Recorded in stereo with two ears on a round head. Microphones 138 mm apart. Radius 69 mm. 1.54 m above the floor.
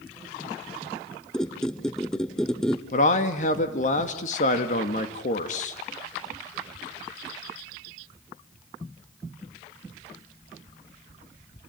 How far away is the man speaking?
About 2 m.